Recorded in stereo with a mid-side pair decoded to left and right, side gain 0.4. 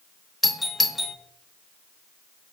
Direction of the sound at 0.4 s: 15° left.